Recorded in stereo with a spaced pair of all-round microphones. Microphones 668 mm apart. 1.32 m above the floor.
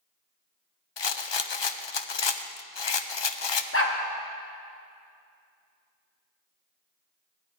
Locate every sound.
1.0 s a rattle: 40° left (ahead or behind), 0.5 m
3.7 s a dog barking: 20° left (ahead or behind), 1.0 m